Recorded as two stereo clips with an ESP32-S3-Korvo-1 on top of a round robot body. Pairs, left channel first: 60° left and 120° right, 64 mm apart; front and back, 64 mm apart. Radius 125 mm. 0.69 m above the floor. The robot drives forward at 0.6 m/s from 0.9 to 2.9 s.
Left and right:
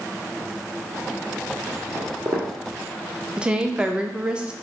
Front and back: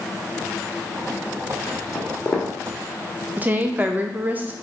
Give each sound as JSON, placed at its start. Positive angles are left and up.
{"t": 1.9, "sound": "footsteps", "azimuth_deg": -65, "distance_m": 1.4}
{"t": 3.4, "sound": "a woman speaking", "azimuth_deg": -175, "distance_m": 0.5}